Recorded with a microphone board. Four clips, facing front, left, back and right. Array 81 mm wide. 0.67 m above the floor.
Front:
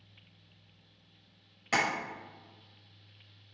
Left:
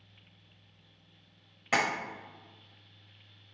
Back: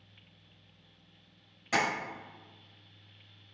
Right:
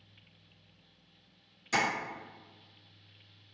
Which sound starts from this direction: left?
Tapping, at 1.7 s.